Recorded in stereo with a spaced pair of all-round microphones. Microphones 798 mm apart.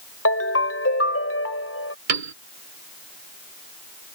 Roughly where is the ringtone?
Centre.